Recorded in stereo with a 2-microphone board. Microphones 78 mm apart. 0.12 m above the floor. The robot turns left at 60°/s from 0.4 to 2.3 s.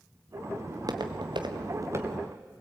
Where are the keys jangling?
I don't hear keys jangling.